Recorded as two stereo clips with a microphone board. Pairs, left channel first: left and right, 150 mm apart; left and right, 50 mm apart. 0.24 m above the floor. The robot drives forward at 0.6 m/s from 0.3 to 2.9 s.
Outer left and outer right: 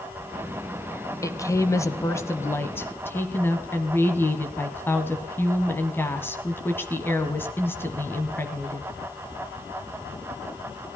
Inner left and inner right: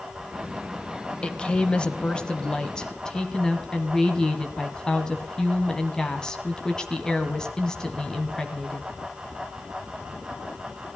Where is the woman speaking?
20° left (ahead or behind), 0.9 m; by 8.9 s 15° left (ahead or behind), 1.4 m.